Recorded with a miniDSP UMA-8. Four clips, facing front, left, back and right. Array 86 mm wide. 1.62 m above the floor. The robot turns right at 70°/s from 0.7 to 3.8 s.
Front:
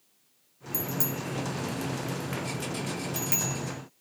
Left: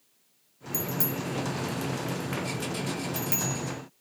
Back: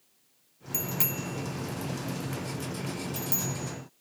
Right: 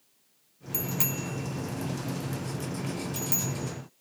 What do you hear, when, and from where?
0.7 s a bicycle bell: 160° right, 2 m; by 3.6 s 45° left, 2 m